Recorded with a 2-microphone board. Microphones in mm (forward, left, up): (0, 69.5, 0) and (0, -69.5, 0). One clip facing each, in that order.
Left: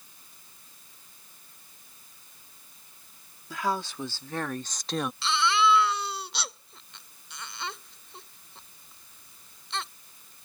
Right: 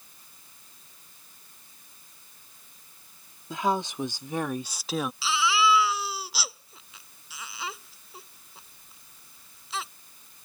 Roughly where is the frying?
No frying in this recording.